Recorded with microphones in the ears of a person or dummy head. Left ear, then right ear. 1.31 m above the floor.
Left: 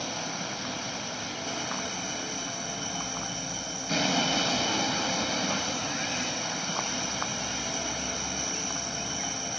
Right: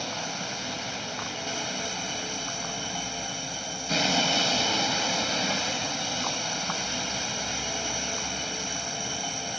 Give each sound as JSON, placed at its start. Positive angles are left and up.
{"t": 0.0, "sound": "a vehicle", "side_deg": -20}